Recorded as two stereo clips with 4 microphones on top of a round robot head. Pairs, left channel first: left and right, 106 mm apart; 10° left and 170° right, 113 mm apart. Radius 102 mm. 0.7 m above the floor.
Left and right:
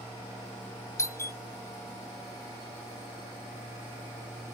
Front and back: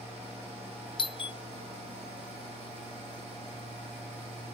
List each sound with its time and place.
1.0 s a doorbell: 35° left